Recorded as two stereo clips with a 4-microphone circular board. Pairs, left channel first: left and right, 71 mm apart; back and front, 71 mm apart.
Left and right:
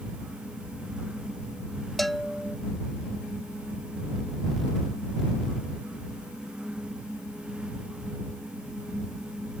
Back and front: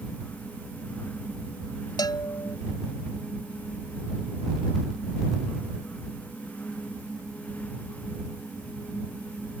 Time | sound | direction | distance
2.0 | a bell | straight behind | ?